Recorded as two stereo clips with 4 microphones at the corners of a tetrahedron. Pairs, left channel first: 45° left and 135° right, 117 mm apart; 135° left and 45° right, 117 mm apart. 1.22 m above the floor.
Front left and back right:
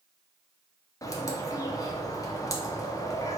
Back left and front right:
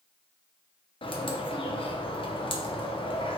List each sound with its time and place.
1.0 s a bird: 105° left, 0.6 m